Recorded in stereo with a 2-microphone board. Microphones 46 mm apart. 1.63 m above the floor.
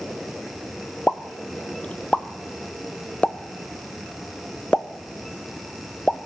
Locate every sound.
1.1 s a pop: 25° left (ahead or behind), 0.6 m